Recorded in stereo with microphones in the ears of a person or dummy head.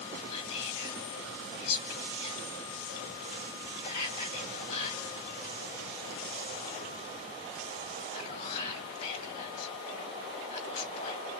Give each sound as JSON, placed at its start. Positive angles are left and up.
{"t": 0.3, "sound": "whispering", "side_deg": 45, "distance_m": 2.5}